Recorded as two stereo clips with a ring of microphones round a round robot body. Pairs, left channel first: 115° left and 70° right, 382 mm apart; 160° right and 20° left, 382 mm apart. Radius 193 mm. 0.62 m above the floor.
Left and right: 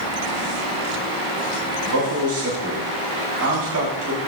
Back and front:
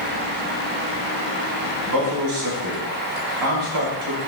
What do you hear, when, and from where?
1.8 s a man speaking: 15° right, 7 m